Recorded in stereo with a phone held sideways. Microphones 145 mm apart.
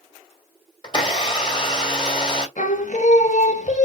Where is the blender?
35° left (ahead or behind), 2 m.